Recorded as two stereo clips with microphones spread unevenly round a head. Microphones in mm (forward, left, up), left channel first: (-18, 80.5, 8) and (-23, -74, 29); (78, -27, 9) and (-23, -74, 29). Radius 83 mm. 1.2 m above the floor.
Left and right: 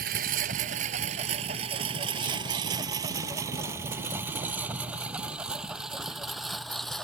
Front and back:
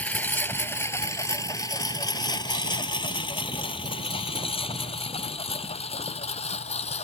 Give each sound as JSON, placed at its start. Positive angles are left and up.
{"t": 0.0, "sound": "a lawn mower", "azimuth_deg": -55}